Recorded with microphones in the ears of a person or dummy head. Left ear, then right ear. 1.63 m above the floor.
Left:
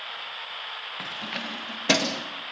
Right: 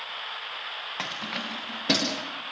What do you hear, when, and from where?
1.0 s keys jangling: 20° right (ahead or behind), 0.9 m; by 2.2 s 35° left (ahead or behind), 2 m